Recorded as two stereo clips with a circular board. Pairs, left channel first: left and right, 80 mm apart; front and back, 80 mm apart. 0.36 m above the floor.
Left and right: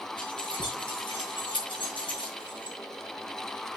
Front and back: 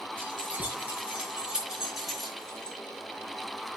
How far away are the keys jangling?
About 5 m.